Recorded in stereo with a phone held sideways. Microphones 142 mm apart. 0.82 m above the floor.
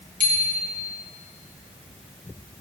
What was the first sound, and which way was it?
A bicycle bell, 70° right (ahead or behind).